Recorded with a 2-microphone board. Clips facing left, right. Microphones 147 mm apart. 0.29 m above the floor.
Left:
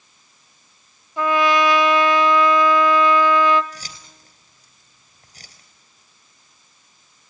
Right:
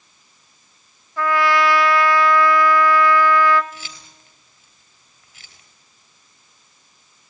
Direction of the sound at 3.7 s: 40° left (ahead or behind).